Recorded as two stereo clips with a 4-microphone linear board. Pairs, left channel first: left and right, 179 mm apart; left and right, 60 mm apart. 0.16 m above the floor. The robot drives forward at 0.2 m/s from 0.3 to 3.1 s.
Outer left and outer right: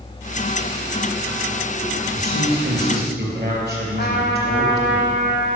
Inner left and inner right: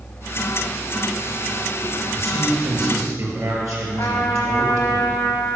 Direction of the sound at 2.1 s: 65° right (ahead or behind).